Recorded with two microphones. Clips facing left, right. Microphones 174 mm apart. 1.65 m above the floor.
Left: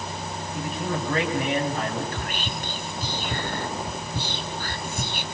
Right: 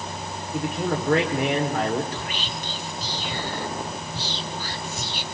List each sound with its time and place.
0.5 s a man speaking: 85° right, 6 m
2.1 s whispering: 50° left (ahead or behind), 1.2 m